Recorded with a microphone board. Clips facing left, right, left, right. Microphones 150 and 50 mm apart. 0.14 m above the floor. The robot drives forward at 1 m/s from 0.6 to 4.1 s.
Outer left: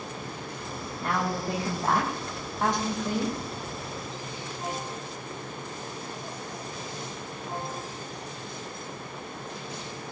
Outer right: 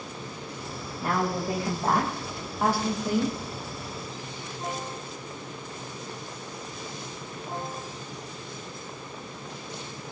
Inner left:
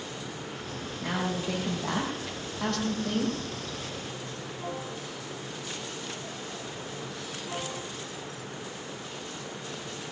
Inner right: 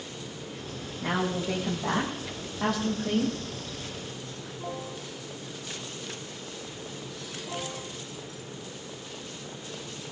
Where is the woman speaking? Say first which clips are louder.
Outer right 2 dB, inner right 2 dB; 5° right (ahead or behind), 6.5 m; by 3.4 s 10° right (ahead or behind), 4.5 m.